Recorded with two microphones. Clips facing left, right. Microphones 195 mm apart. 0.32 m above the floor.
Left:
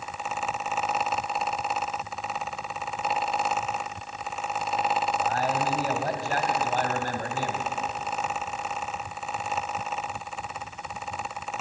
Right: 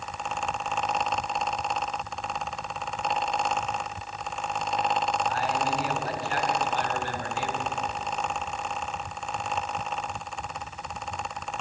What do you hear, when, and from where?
5.2 s a man speaking: 45° left (ahead or behind), 2.5 m